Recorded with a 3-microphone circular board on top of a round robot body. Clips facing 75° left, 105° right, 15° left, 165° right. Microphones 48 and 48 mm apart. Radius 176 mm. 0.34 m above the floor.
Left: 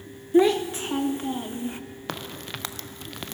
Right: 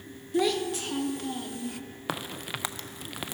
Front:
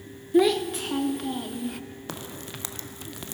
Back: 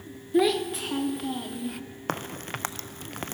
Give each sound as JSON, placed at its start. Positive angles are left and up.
{"t": 0.3, "sound": "a child speaking", "azimuth_deg": 105, "distance_m": 0.6}
{"t": 2.1, "sound": "a crack", "azimuth_deg": 170, "distance_m": 0.5}